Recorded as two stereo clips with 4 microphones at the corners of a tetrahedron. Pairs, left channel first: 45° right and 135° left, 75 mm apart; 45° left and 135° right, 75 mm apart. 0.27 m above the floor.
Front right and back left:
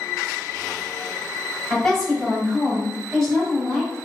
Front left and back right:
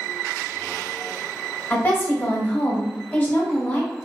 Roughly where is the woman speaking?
Ahead left.